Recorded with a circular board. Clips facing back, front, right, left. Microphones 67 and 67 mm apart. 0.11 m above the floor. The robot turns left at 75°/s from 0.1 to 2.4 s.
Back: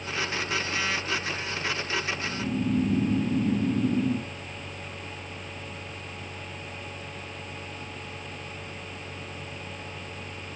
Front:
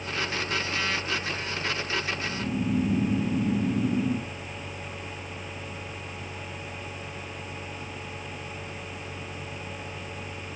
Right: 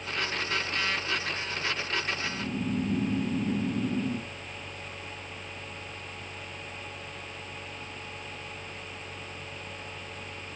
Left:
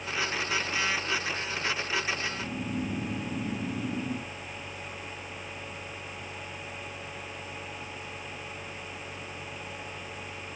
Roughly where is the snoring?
Behind right.